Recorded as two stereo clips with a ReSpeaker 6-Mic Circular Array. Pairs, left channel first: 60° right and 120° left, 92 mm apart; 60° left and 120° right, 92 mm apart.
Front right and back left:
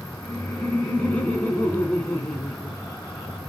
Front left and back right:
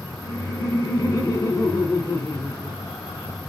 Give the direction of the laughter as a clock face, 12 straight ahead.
12 o'clock.